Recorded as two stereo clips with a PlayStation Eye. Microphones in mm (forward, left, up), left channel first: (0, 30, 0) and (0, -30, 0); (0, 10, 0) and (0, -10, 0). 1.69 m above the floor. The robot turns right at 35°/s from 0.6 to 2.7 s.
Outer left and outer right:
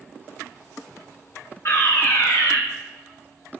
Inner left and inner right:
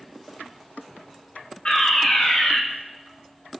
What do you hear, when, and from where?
1.6 s a fire alarm: 50° left, 5.5 m; by 2.6 s 85° left, 5.5 m